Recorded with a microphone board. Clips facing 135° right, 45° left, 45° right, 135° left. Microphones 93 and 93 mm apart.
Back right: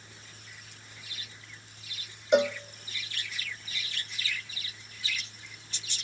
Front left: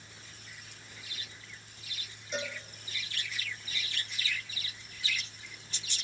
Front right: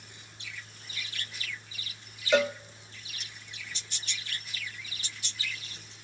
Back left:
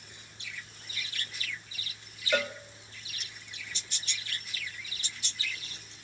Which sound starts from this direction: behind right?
A cowbell, at 2.3 s.